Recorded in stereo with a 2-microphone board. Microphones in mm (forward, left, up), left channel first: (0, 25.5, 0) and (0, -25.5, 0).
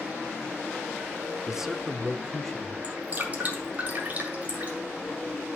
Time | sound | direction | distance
1.5 | a man speaking | 15° right (ahead or behind) | 0.9 m
2.8 | dripping | 30° right (ahead or behind) | 3.5 m